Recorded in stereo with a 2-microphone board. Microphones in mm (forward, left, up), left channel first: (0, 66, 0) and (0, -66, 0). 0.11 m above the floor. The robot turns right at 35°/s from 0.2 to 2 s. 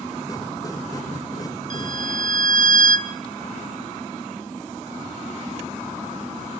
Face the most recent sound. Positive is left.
turn(degrees=-75)  # may be behind; listen again after turning